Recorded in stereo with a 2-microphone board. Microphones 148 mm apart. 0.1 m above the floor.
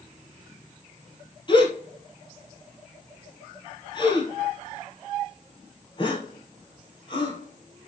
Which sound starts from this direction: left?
A gasp, at 1.5 s.